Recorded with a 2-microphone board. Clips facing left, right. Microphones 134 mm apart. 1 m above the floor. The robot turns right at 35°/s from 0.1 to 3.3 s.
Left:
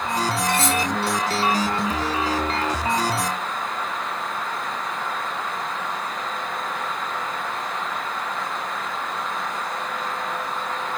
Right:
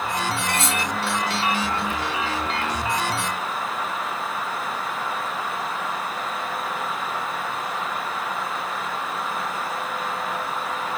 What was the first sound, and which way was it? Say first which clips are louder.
Cutlery clinking: left 3 dB; 20° right (ahead or behind).